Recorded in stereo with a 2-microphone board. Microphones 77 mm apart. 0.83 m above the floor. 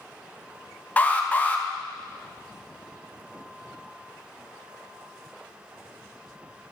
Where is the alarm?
20° left (ahead or behind), 0.8 m.